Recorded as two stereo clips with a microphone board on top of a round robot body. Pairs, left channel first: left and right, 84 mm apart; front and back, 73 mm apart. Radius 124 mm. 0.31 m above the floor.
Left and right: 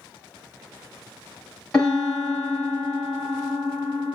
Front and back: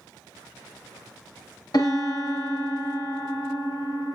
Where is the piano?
10° left, 2 m.